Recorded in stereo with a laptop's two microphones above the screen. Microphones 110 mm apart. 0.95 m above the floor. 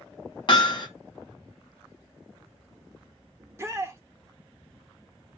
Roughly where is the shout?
Right.